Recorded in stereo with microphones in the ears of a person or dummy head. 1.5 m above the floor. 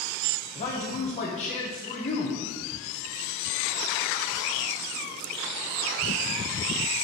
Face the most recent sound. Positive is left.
turn(degrees=35)  # may be behind; listen again after turning